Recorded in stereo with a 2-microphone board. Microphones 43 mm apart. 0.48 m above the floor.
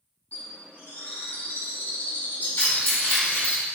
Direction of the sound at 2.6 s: 60° left (ahead or behind).